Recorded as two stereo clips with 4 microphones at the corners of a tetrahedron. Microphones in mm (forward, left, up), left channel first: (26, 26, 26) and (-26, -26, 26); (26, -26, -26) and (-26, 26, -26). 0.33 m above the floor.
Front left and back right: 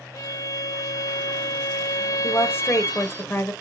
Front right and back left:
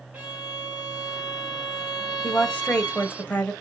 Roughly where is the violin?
Left.